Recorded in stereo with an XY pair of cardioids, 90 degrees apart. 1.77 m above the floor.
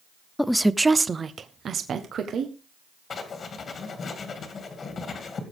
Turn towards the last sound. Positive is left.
turn(degrees=55)